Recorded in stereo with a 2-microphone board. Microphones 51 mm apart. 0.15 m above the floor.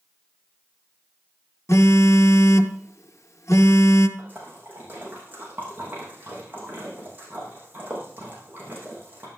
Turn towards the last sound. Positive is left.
turn(degrees=-35)  # may be behind; listen again after turning